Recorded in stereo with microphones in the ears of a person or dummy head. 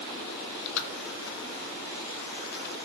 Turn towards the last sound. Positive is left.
turn(degrees=60)  # may be behind; listen again after turning